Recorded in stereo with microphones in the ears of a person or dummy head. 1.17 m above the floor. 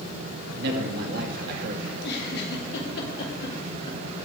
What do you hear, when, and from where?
0.6 s a man speaking: 50° right (ahead or behind), 2.5 m
1.9 s a giggle: 60° left (ahead or behind), 3 m